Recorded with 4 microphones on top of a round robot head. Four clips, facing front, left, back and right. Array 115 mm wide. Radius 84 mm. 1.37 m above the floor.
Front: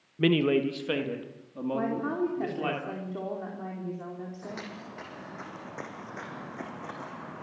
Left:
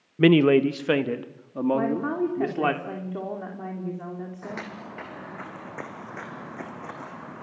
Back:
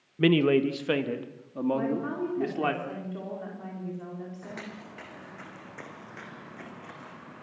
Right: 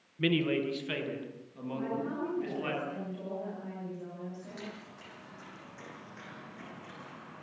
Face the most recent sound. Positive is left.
turn(degrees=55)